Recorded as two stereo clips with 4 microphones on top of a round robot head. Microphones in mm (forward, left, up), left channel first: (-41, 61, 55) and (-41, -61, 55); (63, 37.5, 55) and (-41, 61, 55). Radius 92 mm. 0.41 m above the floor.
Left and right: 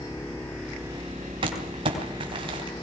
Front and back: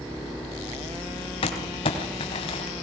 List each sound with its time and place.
1.4 s crumpling: 45° right, 3.5 m